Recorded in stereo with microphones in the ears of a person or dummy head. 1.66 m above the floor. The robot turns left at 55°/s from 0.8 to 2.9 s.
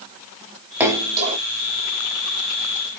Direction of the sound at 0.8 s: 10° right (ahead or behind).